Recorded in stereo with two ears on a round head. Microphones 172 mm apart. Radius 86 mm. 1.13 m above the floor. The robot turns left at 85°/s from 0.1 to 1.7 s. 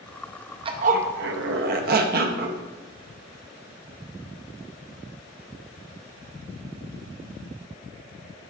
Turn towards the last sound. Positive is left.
turn(degrees=-120)